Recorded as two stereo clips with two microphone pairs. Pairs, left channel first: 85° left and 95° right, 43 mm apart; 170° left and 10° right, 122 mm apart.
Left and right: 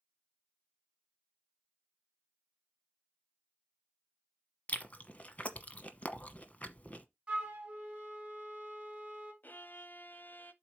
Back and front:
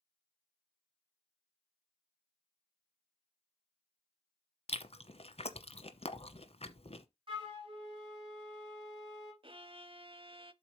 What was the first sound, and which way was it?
Chewing, 135° left.